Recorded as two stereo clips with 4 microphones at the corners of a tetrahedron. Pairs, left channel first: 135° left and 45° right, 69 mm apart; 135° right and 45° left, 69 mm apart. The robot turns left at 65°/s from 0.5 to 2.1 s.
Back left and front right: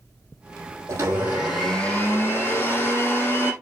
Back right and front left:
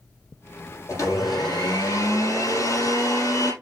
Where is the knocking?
No knocking in this recording.